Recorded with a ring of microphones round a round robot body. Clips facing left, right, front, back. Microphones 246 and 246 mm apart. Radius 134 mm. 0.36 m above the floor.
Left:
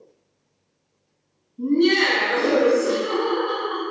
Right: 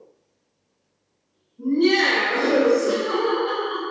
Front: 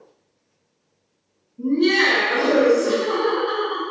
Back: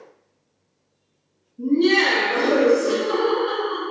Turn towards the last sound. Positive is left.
turn(degrees=-125)